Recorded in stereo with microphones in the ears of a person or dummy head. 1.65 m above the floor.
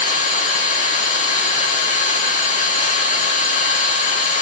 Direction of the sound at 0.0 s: 45° left (ahead or behind).